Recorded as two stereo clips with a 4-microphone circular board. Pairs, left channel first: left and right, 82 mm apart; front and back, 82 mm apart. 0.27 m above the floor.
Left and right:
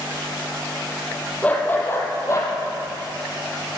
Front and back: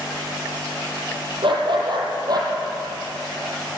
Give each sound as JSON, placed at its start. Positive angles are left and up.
{"t": 1.4, "sound": "a dog barking", "azimuth_deg": 160, "distance_m": 3.0}